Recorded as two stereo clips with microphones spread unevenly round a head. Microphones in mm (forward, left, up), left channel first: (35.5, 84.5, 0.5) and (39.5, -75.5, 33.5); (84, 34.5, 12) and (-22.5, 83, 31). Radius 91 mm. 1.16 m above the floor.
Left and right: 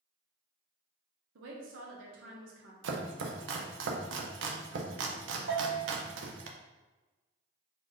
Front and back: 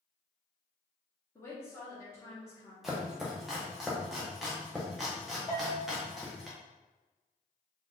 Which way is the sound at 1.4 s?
95° right.